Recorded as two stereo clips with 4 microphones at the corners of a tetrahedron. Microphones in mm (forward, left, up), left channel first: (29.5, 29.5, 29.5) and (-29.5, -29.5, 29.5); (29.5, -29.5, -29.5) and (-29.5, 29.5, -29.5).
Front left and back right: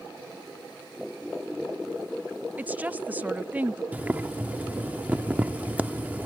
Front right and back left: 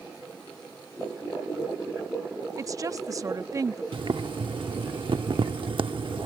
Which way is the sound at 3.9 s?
150° left.